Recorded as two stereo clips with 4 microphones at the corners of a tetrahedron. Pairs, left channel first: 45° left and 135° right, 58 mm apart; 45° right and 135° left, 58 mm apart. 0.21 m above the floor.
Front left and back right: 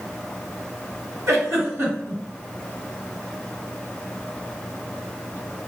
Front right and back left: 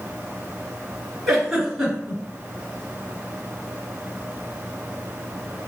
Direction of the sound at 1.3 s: 145° right.